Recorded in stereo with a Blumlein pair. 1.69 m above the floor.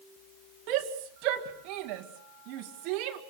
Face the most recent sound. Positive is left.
turn(degrees=-40)